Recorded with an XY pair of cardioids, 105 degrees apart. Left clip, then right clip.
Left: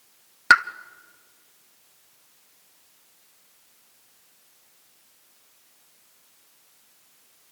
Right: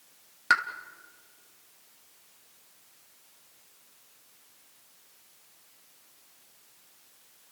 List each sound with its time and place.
0.5 s a pop: 50° left, 0.7 m